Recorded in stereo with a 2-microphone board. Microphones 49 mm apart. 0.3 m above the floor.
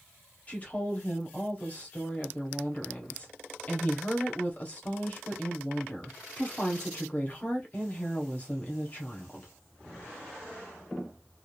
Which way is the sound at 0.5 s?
30° left (ahead or behind).